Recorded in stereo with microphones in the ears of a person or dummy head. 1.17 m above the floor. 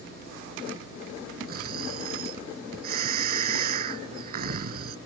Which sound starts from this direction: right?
Snoring, at 1.5 s.